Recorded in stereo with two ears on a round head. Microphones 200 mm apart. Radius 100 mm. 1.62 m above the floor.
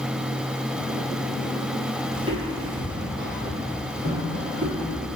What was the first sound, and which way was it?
Footsteps, 25° right (ahead or behind).